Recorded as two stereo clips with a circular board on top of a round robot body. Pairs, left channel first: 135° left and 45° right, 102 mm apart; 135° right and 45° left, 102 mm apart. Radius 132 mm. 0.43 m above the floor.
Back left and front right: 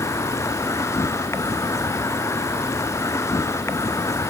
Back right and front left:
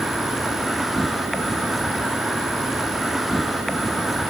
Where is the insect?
135° left.